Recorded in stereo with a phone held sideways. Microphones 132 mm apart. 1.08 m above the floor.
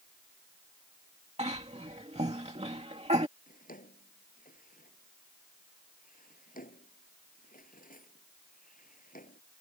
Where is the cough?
50° right (ahead or behind).